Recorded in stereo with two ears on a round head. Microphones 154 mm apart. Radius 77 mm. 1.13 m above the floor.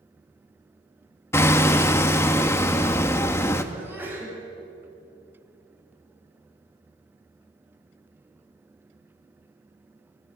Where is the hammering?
15° left (ahead or behind), 1.0 m.